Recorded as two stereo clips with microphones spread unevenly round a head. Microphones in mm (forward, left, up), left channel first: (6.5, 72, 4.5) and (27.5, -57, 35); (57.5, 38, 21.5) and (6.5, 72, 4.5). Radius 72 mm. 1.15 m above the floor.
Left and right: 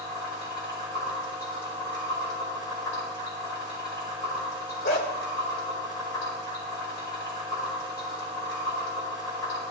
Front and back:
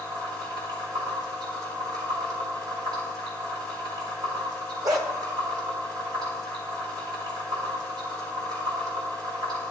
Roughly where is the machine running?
Behind.